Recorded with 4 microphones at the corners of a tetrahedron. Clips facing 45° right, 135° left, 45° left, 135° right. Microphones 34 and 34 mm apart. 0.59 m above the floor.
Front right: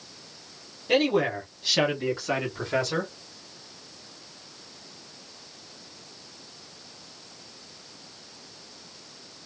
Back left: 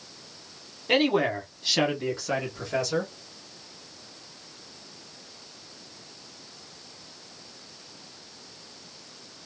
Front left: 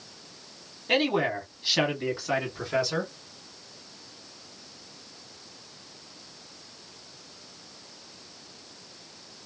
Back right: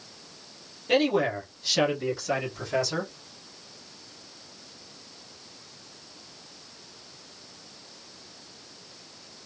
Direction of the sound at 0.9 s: 95° left.